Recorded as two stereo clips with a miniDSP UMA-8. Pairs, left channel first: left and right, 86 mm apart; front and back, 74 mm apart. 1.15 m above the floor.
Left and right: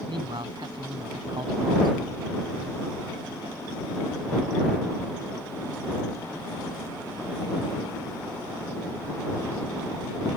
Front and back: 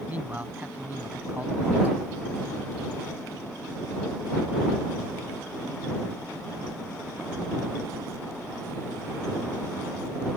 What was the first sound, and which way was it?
A man speaking, 110° right.